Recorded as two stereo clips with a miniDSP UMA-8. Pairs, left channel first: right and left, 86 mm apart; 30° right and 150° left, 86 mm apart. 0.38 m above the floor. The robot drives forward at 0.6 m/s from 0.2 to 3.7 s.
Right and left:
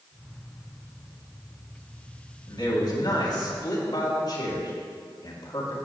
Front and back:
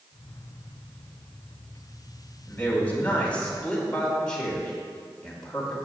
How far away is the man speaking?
About 2.5 m.